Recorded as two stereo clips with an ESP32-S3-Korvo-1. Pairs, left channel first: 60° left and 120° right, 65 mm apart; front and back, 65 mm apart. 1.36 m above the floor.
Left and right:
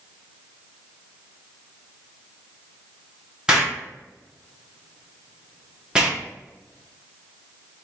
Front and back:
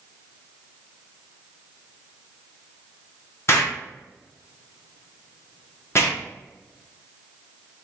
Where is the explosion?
45° right, 1.3 m.